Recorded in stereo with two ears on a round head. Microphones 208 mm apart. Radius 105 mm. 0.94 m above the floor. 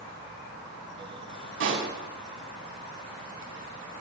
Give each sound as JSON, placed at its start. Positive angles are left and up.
{"t": 1.6, "sound": "a pop", "side_deg": -60, "distance_m": 6.5}